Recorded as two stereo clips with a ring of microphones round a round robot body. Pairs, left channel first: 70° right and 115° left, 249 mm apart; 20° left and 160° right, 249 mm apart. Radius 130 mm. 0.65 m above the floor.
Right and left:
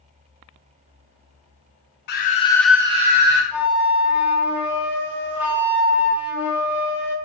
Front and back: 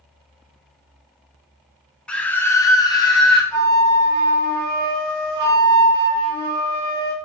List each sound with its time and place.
2.1 s a scream: 60° right, 0.7 m; by 3.4 s 90° left, 0.9 m
3.5 s a flute: 165° right, 0.8 m